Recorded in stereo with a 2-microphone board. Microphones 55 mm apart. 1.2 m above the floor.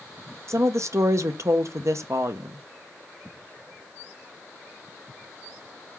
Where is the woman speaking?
60° right (ahead or behind), 0.6 m.